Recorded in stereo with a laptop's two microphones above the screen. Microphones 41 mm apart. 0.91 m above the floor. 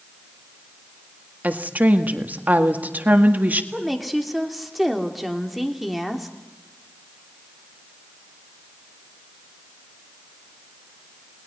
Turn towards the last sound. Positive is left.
turn(degrees=0)  # may be behind; listen again after turning